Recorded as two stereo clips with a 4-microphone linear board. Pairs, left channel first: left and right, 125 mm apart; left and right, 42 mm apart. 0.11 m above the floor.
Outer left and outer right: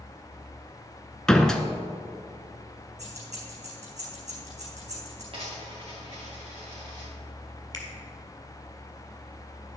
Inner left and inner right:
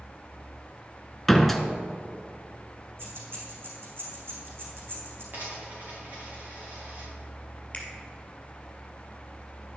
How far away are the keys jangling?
About 3.5 m.